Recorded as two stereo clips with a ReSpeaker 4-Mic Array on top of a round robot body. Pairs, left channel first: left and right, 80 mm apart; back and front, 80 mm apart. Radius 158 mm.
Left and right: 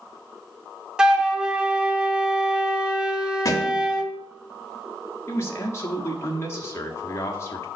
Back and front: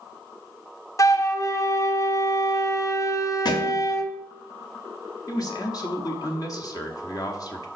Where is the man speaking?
145° left, 1.1 m.